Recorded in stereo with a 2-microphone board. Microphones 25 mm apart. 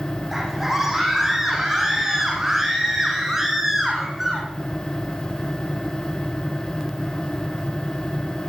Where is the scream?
15° right (ahead or behind), 6.5 m.